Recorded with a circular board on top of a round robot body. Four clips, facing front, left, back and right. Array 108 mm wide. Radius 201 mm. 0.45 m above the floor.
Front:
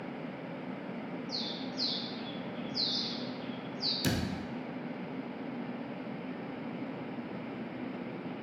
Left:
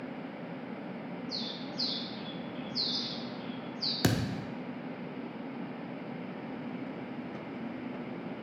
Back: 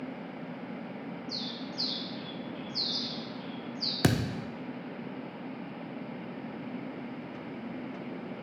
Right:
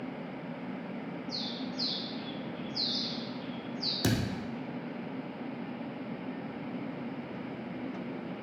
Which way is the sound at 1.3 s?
140° left.